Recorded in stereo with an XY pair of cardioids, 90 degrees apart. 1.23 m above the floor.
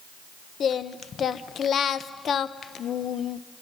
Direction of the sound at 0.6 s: 60° left.